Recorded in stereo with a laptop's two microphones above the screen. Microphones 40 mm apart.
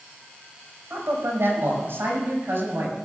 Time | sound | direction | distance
0.9 | a man speaking | 75° right (ahead or behind) | 5 m